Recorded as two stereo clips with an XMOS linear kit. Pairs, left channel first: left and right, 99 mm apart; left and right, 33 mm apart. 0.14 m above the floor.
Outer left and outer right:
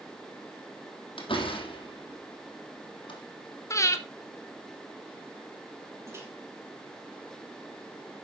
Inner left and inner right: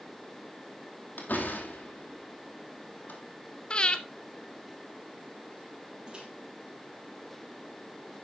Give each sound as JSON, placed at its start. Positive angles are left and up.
{"t": 1.2, "sound": "a door slam", "side_deg": 65, "distance_m": 3.5}
{"t": 3.7, "sound": "breathing", "side_deg": 30, "distance_m": 1.0}
{"t": 6.1, "sound": "a microwave", "side_deg": -30, "distance_m": 3.5}